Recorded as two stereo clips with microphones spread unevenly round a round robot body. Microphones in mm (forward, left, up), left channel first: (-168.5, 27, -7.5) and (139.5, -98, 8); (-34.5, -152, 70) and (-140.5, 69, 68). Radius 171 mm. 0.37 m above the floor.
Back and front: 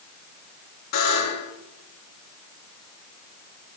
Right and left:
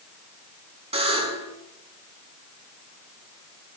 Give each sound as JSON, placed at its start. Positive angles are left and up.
{"t": 0.9, "sound": "a buzzer", "azimuth_deg": 180, "distance_m": 4.5}